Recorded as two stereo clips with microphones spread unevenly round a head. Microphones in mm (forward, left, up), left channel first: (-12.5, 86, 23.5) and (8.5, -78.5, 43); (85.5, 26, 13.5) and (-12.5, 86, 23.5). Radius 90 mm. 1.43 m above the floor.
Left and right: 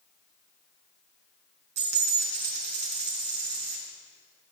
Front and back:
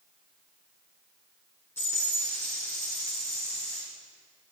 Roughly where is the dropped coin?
Right.